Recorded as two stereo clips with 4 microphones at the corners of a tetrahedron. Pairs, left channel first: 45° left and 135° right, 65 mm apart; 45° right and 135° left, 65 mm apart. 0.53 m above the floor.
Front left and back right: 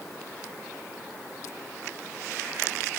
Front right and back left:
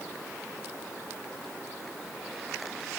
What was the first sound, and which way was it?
Only background noise.